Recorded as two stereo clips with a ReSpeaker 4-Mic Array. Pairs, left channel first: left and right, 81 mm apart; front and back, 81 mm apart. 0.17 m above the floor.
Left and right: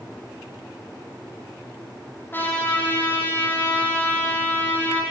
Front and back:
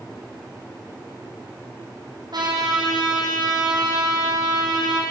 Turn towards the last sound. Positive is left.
turn(degrees=155)